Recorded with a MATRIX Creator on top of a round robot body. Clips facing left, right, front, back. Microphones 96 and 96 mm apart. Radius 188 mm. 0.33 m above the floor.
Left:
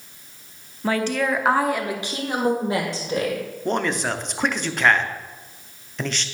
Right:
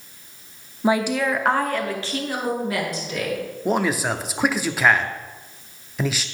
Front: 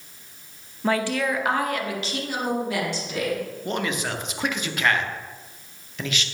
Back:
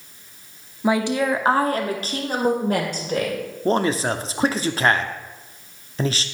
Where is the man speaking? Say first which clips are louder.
Right 2 dB, back 9 dB; 170° right, 1.0 m.